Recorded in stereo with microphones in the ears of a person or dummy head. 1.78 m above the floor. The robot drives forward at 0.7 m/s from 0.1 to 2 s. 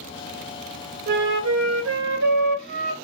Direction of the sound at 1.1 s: 55° right (ahead or behind).